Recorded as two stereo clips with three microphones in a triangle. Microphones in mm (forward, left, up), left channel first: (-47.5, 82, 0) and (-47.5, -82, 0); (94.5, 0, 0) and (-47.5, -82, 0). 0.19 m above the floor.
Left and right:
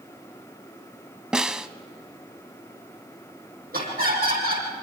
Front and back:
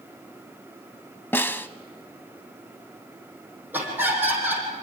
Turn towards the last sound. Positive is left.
turn(degrees=-75)